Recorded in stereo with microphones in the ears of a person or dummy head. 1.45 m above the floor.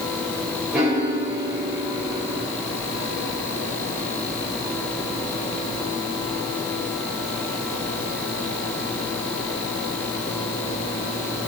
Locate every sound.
0.7 s a piano: centre (ahead or behind), 1.1 m